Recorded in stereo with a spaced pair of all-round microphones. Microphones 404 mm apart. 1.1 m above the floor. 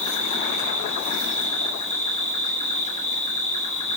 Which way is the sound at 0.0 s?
50° left (ahead or behind).